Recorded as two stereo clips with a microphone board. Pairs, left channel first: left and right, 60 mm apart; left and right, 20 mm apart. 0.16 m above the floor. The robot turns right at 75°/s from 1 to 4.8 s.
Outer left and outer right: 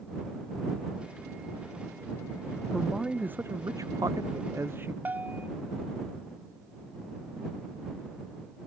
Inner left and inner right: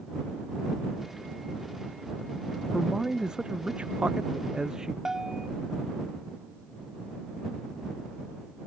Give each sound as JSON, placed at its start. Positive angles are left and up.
{"t": 2.7, "sound": "a man speaking", "azimuth_deg": 170}
{"t": 5.0, "sound": "a bell", "side_deg": -30}